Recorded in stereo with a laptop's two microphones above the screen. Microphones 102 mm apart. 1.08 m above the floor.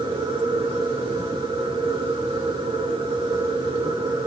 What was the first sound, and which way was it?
A machine running, 50° right (ahead or behind).